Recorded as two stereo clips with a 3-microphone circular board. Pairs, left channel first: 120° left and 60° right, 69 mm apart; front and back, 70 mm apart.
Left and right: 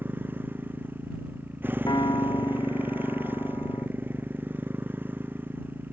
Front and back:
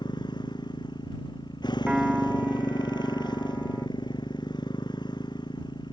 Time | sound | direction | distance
0.0 | a motorcycle | 5° left | ?
1.9 | a piano | 100° left | ?